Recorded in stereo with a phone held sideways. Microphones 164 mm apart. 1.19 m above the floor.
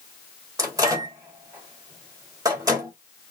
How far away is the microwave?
About 1.2 m.